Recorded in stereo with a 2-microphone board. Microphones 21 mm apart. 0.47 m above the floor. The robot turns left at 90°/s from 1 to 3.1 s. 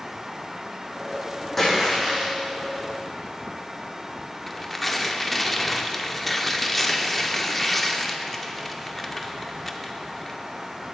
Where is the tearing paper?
10° left (ahead or behind), 0.7 m.